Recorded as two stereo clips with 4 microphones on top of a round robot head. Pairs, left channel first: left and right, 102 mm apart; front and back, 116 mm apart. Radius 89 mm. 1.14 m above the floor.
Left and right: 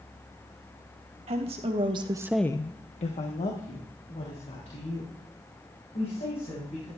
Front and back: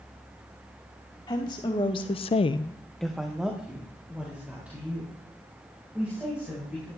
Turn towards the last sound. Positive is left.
turn(degrees=105)